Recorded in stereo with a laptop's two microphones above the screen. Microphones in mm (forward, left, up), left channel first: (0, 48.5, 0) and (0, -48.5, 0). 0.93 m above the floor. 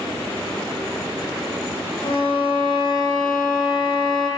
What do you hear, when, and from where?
2.0 s a violin: 65° left (ahead or behind), 4.5 m